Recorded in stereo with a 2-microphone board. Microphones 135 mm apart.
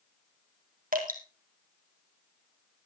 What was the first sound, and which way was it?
Dripping, 80° right.